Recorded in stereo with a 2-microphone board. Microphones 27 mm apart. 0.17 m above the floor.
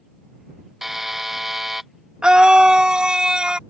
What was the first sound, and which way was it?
A buzzer, 10° right (ahead or behind).